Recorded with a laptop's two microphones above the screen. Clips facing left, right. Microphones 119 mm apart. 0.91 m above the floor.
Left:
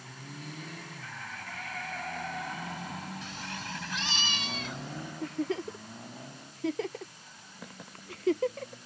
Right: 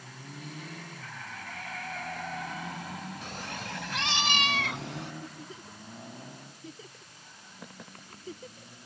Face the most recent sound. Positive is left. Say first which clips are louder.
# left 12 dB
turn(degrees=80)